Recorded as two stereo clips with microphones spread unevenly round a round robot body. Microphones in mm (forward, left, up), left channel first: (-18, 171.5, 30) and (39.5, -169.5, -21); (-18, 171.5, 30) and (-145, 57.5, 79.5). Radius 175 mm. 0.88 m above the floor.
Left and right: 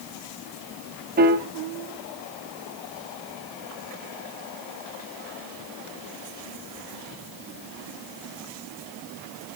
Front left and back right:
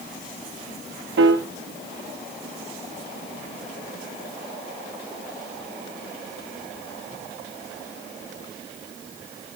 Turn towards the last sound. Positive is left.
turn(degrees=-140)